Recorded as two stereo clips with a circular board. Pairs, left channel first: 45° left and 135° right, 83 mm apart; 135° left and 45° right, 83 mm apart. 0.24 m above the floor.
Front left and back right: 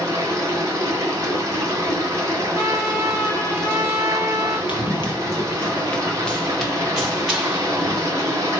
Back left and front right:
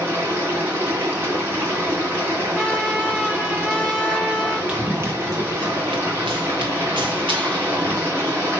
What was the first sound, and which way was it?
Running water, 95° right.